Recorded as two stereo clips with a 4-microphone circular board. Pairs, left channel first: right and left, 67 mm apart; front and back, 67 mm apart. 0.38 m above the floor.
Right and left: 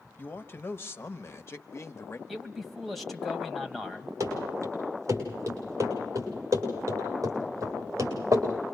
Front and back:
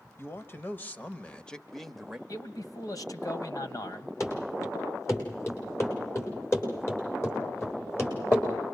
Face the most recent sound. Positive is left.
turn(degrees=55)